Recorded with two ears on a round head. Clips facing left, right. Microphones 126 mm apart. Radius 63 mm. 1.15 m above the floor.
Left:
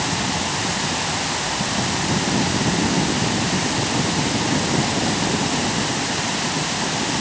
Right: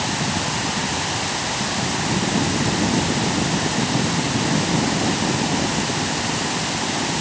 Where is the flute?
No flute in this recording.